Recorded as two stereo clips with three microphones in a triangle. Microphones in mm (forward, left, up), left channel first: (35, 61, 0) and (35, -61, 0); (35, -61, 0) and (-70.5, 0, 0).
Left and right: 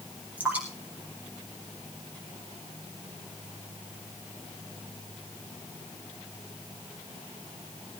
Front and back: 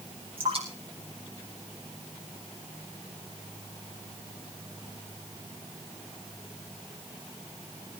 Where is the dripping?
165° right, 7.5 m.